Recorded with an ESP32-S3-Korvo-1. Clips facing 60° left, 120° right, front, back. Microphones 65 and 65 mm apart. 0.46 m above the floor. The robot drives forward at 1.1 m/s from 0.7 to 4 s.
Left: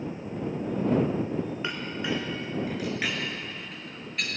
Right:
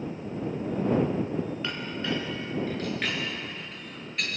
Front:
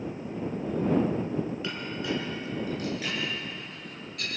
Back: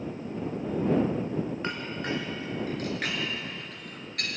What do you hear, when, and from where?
1.6 s a clink: 130° left, 4 m; by 4.3 s 150° left, 6 m